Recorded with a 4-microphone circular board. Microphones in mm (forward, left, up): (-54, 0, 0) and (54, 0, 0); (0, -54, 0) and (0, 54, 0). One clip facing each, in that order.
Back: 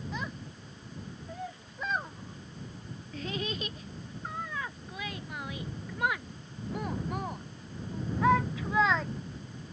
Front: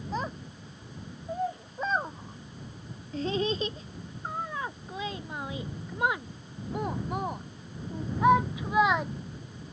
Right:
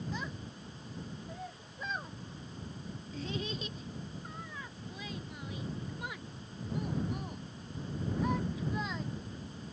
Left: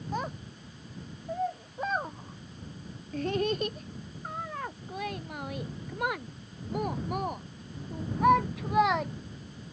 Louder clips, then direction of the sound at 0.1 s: Front 5 dB, left 6 dB; 50° left.